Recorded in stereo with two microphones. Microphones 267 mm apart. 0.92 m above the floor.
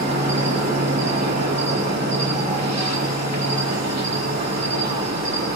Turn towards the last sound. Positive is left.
turn(degrees=-75)  # may be behind; listen again after turning